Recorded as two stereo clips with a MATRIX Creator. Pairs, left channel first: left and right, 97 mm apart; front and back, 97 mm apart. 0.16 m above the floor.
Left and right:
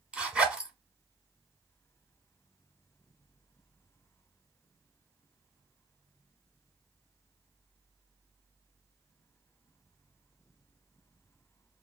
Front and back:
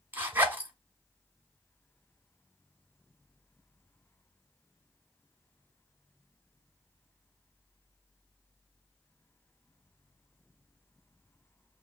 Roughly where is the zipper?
Behind right.